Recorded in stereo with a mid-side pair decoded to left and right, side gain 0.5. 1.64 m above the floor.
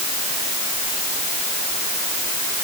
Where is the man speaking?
I don't hear a man speaking.